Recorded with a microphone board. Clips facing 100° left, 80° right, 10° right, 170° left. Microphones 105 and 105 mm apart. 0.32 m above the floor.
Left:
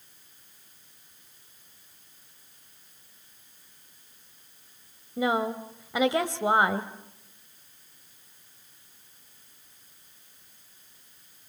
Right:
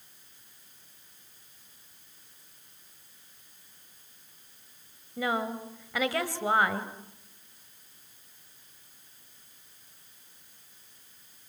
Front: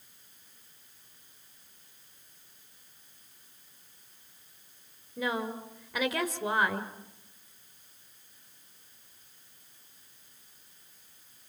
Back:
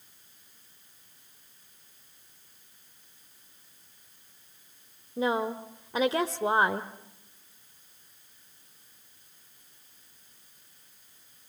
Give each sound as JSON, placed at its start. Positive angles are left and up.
{"t": 5.2, "sound": "a woman speaking", "azimuth_deg": 150, "distance_m": 1.4}